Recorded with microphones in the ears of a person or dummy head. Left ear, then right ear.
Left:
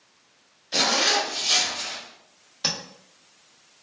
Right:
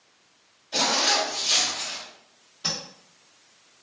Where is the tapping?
55° left (ahead or behind), 1.1 m.